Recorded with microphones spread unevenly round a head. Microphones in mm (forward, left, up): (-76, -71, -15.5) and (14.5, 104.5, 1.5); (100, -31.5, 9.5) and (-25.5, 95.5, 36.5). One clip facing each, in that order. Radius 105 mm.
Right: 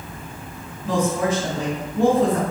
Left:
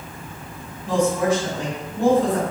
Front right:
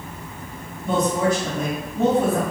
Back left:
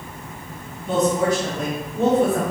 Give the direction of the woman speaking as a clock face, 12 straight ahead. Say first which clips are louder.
Left 2 dB, back left 1 dB; 3 o'clock.